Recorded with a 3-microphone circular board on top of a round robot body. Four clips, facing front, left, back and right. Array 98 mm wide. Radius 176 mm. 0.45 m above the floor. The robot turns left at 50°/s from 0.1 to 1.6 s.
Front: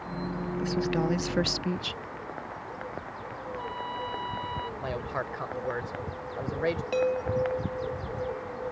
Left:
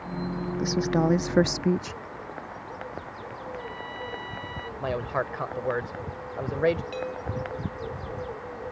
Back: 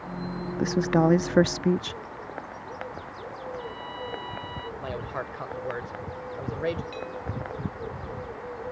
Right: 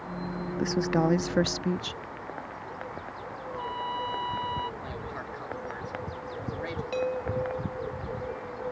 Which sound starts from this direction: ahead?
A chime, at 6.9 s.